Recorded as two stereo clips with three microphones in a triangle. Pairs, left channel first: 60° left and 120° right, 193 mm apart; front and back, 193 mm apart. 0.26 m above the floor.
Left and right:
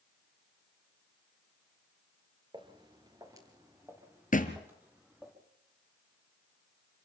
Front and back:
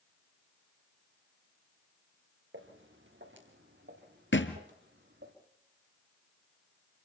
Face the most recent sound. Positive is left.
turn(degrees=10)